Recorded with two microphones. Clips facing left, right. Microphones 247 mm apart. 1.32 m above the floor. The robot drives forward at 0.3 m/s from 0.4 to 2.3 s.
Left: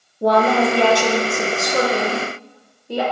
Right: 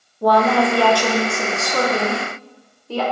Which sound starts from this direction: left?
A woman speaking, at 0.2 s.